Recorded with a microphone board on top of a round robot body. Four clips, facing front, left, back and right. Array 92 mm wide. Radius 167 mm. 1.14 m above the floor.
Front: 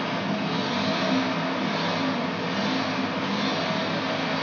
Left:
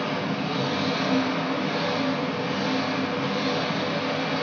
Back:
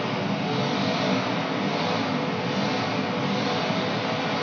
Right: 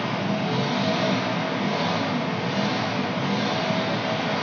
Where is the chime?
No chime in this recording.